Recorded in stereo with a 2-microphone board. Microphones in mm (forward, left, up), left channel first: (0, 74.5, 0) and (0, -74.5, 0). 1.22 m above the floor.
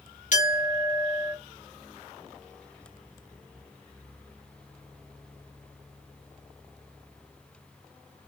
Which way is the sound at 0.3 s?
60° left (ahead or behind).